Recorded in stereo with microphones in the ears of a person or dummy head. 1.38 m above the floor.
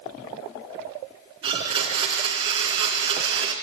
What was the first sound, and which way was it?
A blender, 30° right (ahead or behind).